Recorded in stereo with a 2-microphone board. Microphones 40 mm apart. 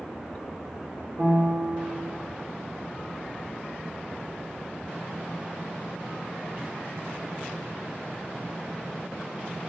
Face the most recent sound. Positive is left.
turn(degrees=-60)  # may be behind; listen again after turning